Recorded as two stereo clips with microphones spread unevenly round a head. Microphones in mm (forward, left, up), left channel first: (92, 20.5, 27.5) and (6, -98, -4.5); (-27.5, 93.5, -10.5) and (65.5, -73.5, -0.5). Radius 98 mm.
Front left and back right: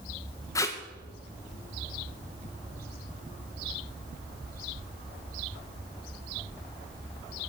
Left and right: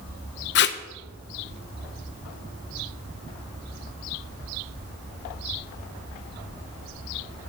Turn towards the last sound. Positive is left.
turn(degrees=135)